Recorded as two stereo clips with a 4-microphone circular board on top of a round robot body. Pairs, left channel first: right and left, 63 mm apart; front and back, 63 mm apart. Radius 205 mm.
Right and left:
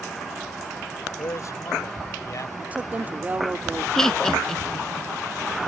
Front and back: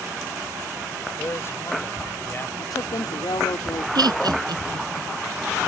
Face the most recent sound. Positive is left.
turn(degrees=-175)